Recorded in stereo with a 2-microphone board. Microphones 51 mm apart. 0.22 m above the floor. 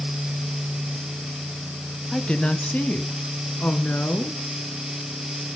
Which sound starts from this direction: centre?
A woman speaking, at 2.1 s.